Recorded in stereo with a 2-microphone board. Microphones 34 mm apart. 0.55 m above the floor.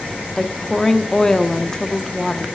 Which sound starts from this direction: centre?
A woman speaking, at 0.4 s.